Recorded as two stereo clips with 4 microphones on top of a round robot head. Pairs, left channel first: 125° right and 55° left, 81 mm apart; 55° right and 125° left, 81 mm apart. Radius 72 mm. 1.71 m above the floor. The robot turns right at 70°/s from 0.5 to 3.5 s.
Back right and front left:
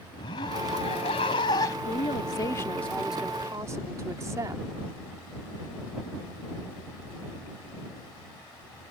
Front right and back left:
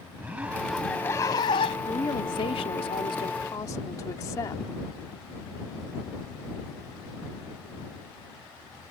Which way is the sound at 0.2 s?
160° right.